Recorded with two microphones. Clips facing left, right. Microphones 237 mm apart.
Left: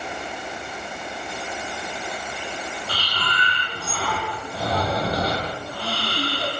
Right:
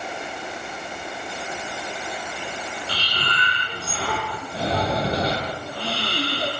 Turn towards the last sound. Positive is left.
turn(degrees=-30)  # may be behind; listen again after turning